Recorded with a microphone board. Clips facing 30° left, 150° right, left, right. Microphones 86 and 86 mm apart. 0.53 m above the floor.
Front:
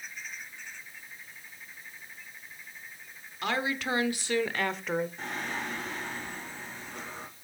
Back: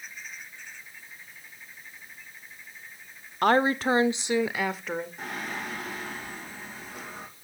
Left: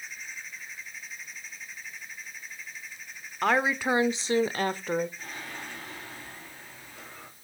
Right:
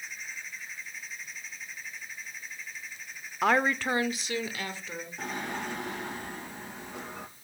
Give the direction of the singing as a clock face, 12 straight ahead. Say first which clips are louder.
Even, right 6 dB; 2 o'clock.